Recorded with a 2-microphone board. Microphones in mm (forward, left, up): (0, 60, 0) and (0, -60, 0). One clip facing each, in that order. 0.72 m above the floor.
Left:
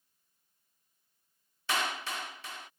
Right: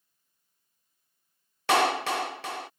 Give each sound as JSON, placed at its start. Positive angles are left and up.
{"t": 1.7, "sound": "a clap", "side_deg": -70}